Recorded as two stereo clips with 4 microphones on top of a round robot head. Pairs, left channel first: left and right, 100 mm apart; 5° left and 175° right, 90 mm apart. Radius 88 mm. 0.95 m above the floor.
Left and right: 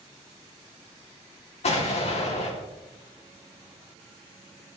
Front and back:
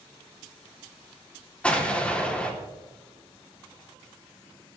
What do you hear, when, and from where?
1.6 s an explosion: 80° left, 3 m